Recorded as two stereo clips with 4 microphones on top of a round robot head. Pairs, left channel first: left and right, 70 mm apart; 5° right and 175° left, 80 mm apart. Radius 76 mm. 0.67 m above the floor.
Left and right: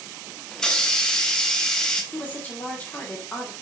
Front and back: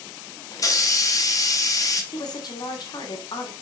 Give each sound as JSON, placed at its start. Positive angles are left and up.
{"t": 0.5, "sound": "a hiss", "azimuth_deg": 10, "distance_m": 1.6}
{"t": 2.1, "sound": "a woman speaking", "azimuth_deg": 20, "distance_m": 2.5}